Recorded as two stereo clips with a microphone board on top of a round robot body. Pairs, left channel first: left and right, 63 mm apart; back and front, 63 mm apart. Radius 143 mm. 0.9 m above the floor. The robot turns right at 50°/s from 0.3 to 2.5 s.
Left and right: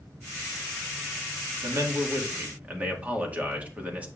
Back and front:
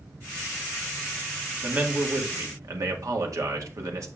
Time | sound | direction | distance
1.6 | a man speaking | 70° right | 1.8 m